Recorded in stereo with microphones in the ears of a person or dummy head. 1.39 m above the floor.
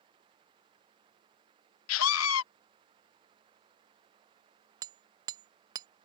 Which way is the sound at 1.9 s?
80° left.